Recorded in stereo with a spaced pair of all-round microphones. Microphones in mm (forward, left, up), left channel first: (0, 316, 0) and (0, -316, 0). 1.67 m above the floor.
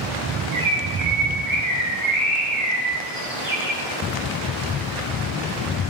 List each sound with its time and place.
0.5 s a bird: 80° right, 1.5 m